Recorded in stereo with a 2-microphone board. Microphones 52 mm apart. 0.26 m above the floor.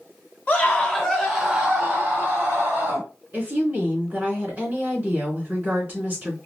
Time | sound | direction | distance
0.5 | a scream | 35° left (ahead or behind) | 1.8 m
3.3 | a woman speaking | 30° right (ahead or behind) | 2.5 m